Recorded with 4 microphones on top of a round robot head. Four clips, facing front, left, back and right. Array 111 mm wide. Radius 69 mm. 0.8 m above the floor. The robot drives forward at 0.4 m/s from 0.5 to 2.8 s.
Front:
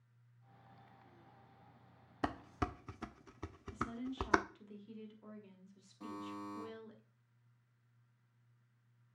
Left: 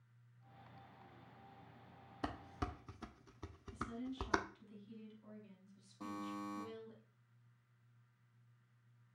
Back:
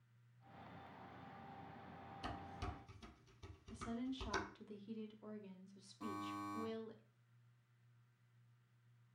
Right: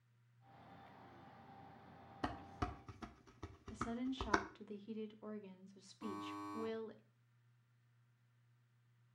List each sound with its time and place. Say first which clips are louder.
2.2 s dishes clattering: even, front 11 dB; straight ahead, 0.7 m; by 4.4 s 5° left, 0.5 m
3.7 s a woman speaking: right 3 dB, front 3 dB; 100° right, 1.4 m
6.0 s a buzzer: left 1 dB, front 1 dB; 85° left, 6 m